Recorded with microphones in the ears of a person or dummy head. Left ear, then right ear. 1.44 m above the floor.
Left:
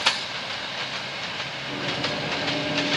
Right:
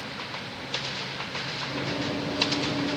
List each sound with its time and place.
1.7 s running footsteps: 15° left (ahead or behind), 4.5 m; by 3.0 s 5° right (ahead or behind), 5 m